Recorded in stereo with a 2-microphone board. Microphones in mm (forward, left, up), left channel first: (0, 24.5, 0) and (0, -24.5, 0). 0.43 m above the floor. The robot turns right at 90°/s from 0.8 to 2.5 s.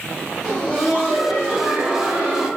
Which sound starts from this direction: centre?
Laughter, at 0.4 s.